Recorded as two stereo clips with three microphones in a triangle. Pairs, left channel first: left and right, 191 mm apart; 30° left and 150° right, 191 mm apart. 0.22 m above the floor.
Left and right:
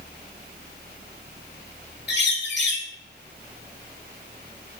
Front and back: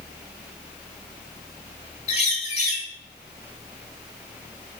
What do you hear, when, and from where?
2.1 s a bird: 80° left, 0.5 m